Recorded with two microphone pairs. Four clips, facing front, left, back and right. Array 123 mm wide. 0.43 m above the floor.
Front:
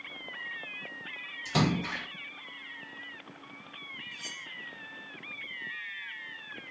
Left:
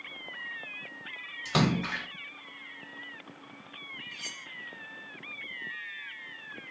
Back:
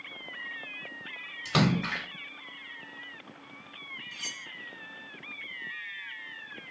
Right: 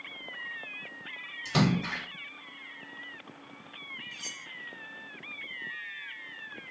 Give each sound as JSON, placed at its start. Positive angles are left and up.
{"t": 1.4, "sound": "a splash", "azimuth_deg": 145, "distance_m": 1.6}
{"t": 4.1, "sound": "cutlery clinking", "azimuth_deg": 155, "distance_m": 0.6}